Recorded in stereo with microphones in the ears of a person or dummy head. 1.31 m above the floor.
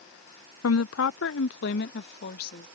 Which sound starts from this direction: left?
A woman speaking, at 0.6 s.